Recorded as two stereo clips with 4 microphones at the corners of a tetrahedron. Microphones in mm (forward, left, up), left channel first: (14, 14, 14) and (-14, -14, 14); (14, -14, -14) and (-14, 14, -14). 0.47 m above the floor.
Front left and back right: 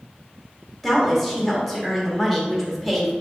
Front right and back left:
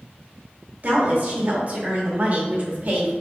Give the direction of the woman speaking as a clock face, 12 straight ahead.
8 o'clock.